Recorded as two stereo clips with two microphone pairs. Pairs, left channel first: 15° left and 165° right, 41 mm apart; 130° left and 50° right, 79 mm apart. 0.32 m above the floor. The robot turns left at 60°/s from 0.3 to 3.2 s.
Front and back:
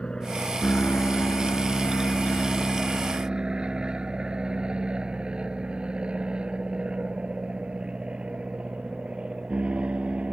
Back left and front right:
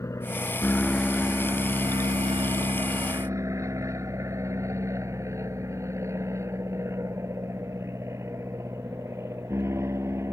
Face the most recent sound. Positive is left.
turn(degrees=-100)